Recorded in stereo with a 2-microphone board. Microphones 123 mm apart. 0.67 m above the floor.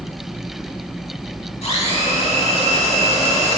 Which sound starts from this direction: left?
A blender, at 1.6 s.